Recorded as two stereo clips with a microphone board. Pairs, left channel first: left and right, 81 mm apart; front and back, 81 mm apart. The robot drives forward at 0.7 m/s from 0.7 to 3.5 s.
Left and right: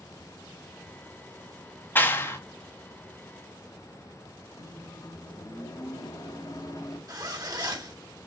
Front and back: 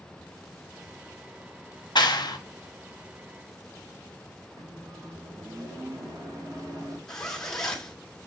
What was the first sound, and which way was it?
A clap, 25° left.